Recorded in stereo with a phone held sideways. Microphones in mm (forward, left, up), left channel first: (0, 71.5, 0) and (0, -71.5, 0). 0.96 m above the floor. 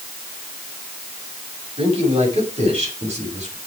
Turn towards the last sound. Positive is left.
turn(degrees=-50)  # may be behind; listen again after turning